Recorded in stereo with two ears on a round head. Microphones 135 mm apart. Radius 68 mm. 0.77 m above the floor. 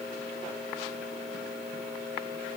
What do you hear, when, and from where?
Only background noise.